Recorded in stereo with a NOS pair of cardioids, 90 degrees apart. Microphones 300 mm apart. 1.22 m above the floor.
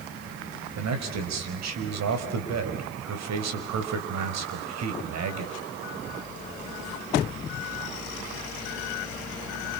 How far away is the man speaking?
About 5.5 m.